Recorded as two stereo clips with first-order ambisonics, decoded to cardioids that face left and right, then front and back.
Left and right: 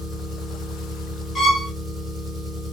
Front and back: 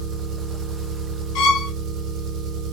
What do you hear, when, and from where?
0.0 s an engine running: 165° right, 2.5 m
1.4 s a violin: 15° left, 0.7 m